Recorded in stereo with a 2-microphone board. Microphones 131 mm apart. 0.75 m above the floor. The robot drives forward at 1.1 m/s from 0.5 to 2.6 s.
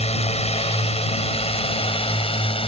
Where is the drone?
55° left (ahead or behind); by 2.7 s 45° left (ahead or behind).